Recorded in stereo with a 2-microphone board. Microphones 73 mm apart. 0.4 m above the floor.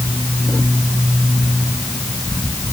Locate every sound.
Only background noise.